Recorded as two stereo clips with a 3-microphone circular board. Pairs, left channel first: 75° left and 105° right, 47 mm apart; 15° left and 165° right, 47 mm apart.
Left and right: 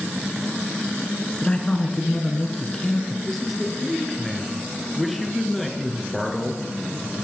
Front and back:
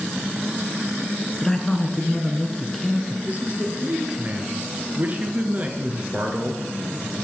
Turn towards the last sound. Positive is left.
turn(degrees=160)